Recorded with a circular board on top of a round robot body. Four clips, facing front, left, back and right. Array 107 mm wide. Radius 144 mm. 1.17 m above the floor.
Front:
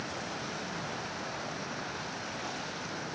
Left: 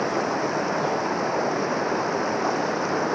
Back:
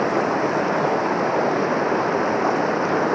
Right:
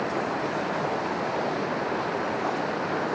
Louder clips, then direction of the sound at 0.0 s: Left 3 dB, back 19 dB; 165° left.